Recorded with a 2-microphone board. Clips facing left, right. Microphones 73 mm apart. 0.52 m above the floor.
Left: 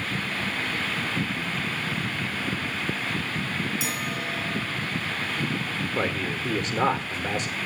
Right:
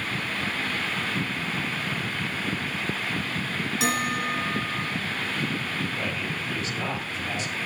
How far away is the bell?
About 5 m.